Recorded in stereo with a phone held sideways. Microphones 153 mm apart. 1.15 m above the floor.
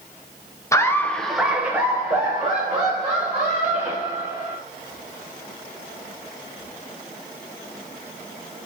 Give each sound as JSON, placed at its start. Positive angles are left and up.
{"t": 0.7, "sound": "laughter", "side_deg": 20, "distance_m": 0.5}